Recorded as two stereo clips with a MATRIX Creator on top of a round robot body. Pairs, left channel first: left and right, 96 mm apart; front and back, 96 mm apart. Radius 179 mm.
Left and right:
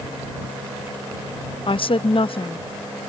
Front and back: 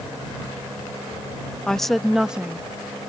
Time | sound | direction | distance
1.7 | a woman speaking | 80° left | ?